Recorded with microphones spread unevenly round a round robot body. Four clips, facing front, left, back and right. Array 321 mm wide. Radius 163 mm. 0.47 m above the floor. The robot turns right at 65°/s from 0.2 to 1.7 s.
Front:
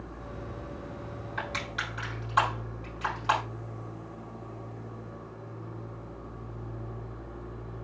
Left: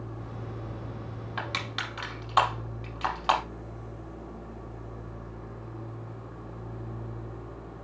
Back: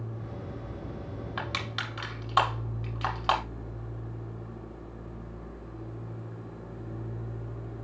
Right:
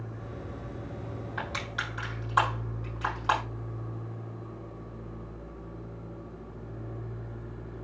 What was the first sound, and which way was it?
Crushing, 155° left.